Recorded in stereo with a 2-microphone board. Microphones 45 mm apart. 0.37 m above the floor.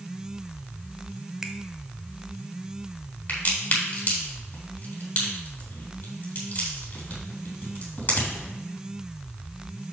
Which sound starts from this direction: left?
A crack, at 3.3 s.